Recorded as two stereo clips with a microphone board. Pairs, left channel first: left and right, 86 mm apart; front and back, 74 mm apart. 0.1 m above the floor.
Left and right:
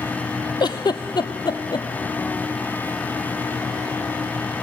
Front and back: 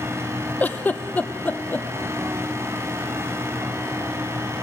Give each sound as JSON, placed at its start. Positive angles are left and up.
{"t": 0.6, "sound": "a giggle", "azimuth_deg": 65, "distance_m": 0.5}